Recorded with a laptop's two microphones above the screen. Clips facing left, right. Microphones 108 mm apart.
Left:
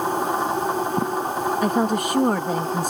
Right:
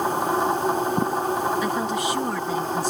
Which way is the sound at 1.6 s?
50° left (ahead or behind).